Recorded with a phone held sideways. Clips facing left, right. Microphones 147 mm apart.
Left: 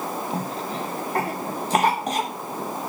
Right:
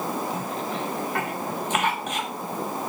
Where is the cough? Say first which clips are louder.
Left 1 dB; 35° left (ahead or behind), 0.9 m.